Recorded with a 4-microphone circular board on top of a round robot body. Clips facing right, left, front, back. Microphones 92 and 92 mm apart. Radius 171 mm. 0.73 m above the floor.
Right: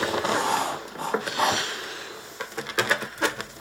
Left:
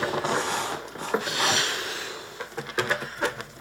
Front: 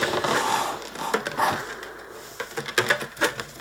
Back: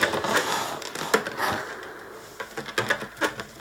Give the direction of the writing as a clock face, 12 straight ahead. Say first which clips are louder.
Right 3 dB, front 2 dB; 2 o'clock.